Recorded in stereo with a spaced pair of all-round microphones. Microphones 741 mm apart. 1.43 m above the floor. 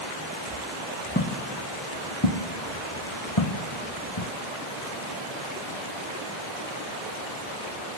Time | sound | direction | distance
1.1 | footsteps | 15° left (ahead or behind) | 2.5 m